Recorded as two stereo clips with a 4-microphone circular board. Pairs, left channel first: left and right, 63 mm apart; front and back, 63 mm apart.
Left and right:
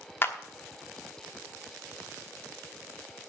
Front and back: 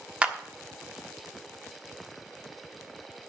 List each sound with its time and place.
0.2 s a clap: 115° left, 1.1 m